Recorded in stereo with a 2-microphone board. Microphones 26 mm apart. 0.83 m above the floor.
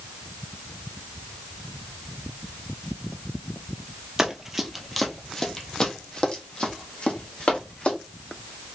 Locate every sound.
4.2 s running footsteps: 20° right (ahead or behind), 0.8 m; by 8.0 s 50° left (ahead or behind), 2 m